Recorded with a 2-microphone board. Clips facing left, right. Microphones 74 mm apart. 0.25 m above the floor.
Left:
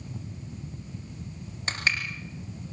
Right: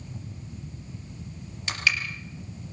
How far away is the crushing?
About 3.5 m.